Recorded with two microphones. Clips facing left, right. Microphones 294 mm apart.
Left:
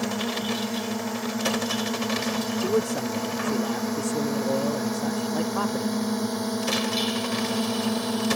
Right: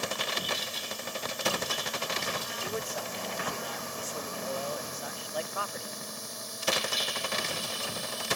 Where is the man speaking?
60° left (ahead or behind).